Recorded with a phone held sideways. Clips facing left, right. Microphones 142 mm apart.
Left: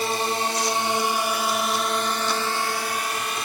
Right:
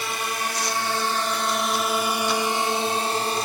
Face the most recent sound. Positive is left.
turn(degrees=-35)  # may be behind; listen again after turning